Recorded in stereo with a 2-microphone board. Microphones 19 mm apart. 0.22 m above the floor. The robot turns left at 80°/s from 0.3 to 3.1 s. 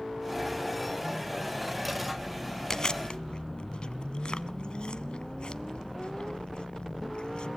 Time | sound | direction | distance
2.7 | chewing | 25° left (ahead or behind) | 0.7 m